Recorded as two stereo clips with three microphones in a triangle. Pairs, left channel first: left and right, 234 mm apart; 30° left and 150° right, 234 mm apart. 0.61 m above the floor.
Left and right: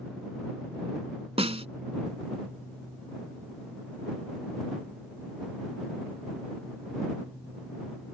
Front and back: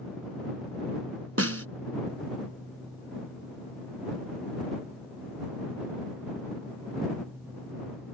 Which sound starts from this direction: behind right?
A snare drum, at 1.4 s.